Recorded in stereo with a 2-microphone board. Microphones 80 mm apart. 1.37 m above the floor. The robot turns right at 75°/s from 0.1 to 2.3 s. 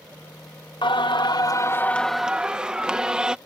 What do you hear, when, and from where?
0.8 s singing: 80° left; by 3.4 s 170° right